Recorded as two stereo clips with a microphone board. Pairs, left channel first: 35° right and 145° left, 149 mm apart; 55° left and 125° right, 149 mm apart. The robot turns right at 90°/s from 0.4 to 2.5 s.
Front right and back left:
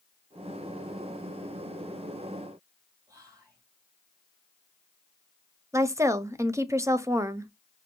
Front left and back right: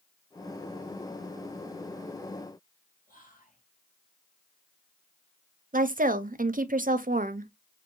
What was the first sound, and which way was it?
Whispering, 80° left.